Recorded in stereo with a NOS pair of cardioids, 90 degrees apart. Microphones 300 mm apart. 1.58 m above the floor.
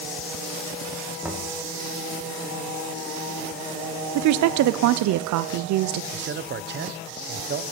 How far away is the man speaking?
About 0.7 m.